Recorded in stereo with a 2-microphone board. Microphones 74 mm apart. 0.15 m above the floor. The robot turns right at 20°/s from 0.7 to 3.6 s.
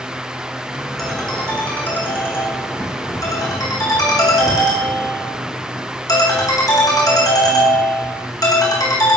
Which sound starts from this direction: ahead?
A ringtone, at 1.0 s.